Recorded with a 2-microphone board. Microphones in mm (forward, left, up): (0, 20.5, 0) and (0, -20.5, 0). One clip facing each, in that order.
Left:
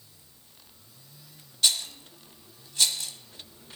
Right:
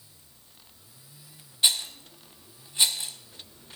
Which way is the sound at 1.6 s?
20° right (ahead or behind).